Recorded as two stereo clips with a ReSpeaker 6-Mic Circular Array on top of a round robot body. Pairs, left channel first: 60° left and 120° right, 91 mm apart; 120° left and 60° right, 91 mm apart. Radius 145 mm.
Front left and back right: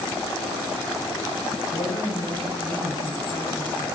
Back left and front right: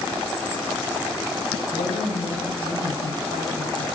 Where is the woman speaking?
115° left, 5 m.